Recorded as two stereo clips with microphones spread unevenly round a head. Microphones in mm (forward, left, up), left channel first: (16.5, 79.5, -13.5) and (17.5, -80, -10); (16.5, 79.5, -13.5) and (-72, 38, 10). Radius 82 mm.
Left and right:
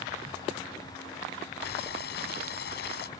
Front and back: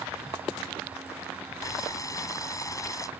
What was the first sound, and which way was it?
Boiling, 80° left.